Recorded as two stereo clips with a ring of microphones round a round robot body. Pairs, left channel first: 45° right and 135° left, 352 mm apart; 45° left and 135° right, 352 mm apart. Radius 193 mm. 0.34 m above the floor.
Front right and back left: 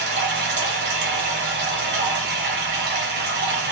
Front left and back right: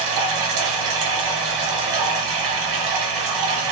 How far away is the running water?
About 0.8 m.